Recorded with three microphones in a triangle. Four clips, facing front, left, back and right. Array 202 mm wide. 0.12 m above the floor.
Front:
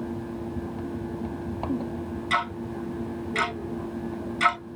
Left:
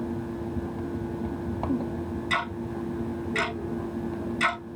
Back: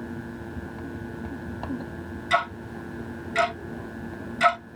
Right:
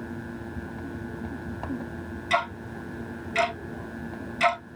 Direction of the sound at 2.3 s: 130° right.